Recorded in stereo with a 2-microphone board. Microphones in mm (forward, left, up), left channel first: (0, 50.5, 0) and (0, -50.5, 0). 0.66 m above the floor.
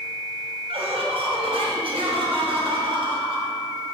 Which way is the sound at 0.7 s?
70° right (ahead or behind).